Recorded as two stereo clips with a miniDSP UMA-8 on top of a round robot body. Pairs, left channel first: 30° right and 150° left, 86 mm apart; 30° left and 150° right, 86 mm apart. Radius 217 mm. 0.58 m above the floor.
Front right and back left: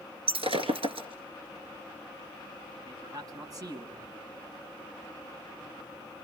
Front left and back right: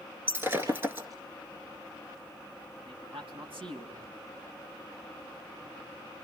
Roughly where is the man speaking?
Behind.